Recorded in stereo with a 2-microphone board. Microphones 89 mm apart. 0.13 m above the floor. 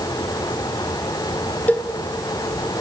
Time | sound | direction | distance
1.7 | a cowbell | 20° left (ahead or behind) | 0.7 m